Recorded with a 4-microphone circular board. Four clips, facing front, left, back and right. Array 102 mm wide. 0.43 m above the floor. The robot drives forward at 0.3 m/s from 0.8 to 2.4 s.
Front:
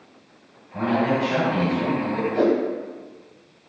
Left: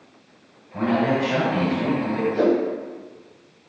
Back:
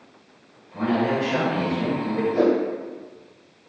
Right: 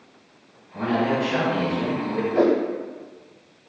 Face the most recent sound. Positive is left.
turn(degrees=-105)